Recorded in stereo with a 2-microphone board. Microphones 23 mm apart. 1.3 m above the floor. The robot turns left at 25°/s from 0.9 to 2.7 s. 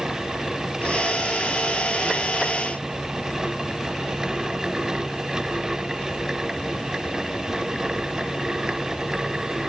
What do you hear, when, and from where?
Only background noise.